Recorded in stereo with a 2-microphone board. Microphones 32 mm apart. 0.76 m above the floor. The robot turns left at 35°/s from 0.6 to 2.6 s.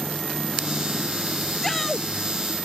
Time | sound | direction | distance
1.6 | a shout | 10° left (ahead or behind) | ?